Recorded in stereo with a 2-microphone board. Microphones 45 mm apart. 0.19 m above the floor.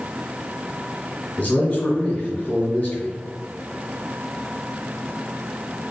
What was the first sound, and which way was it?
A man speaking, 35° left (ahead or behind).